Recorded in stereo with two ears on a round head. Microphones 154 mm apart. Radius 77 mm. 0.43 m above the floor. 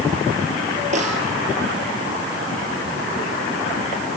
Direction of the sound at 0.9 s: 45° right (ahead or behind).